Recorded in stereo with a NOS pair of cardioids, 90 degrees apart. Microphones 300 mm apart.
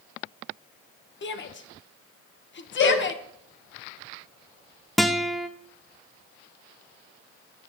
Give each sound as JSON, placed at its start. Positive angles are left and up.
{"t": 1.2, "sound": "a shout", "azimuth_deg": 40, "distance_m": 1.2}
{"t": 2.8, "sound": "a cowbell", "azimuth_deg": 70, "distance_m": 4.0}
{"t": 5.0, "sound": "a guitar", "azimuth_deg": 0, "distance_m": 0.6}